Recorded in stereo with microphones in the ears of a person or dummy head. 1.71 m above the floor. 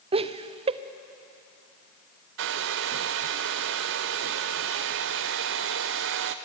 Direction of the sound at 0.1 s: 25° right (ahead or behind).